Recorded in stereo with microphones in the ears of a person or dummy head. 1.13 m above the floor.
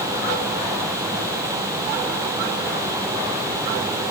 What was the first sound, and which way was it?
Only background noise.